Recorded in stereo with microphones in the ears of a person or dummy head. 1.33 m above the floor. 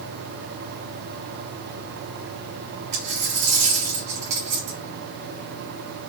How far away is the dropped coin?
About 1.3 m.